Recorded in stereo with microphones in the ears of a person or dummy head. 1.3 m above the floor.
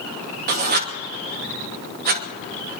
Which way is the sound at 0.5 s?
55° right (ahead or behind).